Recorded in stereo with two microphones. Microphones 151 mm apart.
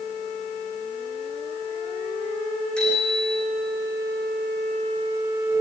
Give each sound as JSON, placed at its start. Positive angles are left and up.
{"t": 2.8, "sound": "a bicycle bell", "side_deg": 5, "distance_m": 7.0}